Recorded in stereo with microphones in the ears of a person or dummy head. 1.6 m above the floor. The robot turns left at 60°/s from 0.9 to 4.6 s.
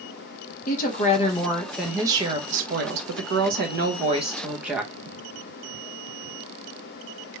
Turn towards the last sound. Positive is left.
turn(degrees=-170)